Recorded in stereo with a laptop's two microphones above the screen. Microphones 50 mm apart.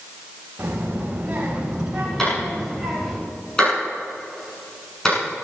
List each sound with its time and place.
0.6 s a child speaking: 35° right (ahead or behind), 4.5 m; by 3.2 s centre (ahead or behind), 4.5 m
2.2 s a clap: 15° left (ahead or behind), 7.5 m